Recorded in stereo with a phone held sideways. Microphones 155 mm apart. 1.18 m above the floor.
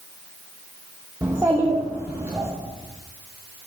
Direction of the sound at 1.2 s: 15° right (ahead or behind).